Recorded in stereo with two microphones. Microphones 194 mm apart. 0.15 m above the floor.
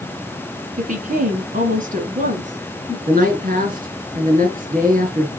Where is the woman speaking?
45° right (ahead or behind), 1.8 m; by 3.0 s 35° right (ahead or behind), 2.5 m.